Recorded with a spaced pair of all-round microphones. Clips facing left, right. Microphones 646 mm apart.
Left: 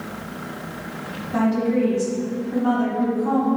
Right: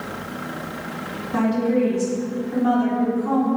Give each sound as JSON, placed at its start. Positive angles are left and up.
{"t": 1.3, "sound": "a woman speaking", "side_deg": 15, "distance_m": 1.5}